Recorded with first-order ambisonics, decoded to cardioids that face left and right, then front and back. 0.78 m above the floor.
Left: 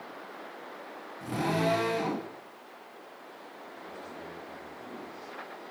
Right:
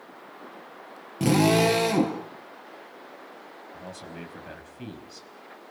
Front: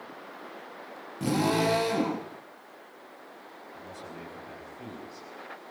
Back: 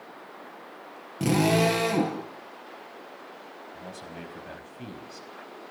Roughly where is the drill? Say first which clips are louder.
Right 9 dB, back 3 dB; behind right.